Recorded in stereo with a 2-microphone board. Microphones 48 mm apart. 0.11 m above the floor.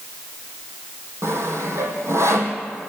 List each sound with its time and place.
1.2 s sawing: 65° right (ahead or behind), 3 m